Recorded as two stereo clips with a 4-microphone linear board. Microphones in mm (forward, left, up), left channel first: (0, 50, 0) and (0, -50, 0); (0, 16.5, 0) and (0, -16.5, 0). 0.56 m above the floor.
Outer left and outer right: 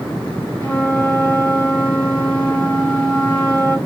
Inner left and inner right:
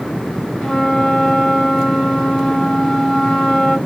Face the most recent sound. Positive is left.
turn(degrees=15)  # may be behind; listen again after turning